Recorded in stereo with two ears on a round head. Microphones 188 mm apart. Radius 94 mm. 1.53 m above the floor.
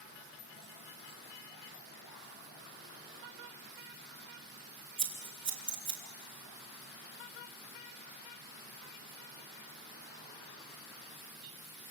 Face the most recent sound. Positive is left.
turn(degrees=-25)  # may be behind; listen again after turning